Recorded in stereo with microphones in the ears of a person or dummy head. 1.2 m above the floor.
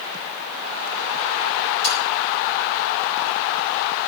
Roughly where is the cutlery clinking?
Right.